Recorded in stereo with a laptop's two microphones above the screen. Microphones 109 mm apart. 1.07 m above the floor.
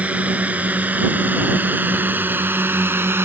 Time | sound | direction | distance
0.0 | a drone | 15° right (ahead or behind) | ?